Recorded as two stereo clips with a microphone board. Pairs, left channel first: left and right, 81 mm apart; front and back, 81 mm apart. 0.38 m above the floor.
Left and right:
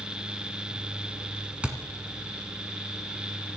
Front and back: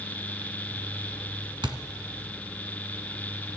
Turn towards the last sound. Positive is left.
turn(degrees=-165)